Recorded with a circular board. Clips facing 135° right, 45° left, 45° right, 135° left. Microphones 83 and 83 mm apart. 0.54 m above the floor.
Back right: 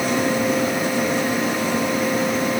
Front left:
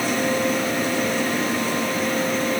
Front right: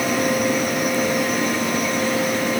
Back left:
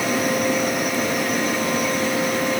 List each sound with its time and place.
Only background noise.